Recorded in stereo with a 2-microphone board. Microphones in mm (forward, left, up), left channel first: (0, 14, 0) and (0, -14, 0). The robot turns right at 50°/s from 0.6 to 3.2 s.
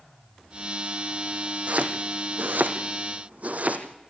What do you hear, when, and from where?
1.7 s chopping: 50° right (ahead or behind), 1.9 m; by 3.8 s 55° right (ahead or behind), 1.9 m